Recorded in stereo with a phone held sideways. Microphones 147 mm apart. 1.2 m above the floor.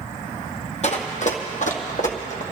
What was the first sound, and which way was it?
Running footsteps, 50° left (ahead or behind).